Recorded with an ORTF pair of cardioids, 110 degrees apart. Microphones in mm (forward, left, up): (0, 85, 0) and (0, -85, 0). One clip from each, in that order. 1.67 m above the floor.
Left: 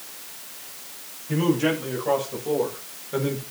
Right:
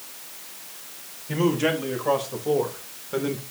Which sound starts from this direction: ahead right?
A man speaking, at 1.3 s.